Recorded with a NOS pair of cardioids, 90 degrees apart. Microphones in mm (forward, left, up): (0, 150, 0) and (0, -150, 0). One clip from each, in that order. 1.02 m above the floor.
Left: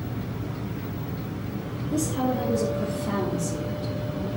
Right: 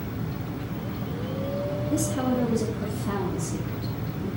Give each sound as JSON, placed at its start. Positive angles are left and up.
{"t": 1.9, "sound": "a woman speaking", "azimuth_deg": -20, "distance_m": 1.7}